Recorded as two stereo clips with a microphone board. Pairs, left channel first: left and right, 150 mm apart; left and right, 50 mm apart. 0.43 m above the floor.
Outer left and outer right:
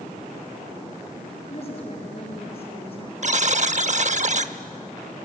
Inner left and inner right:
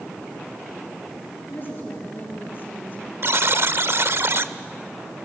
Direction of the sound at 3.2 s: 55° right (ahead or behind).